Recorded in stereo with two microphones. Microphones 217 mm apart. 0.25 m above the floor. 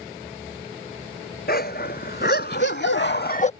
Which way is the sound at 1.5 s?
45° left (ahead or behind).